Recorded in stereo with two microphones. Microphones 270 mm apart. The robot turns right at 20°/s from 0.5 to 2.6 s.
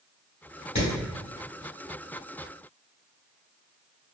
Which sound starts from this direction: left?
Hammering, at 0.8 s.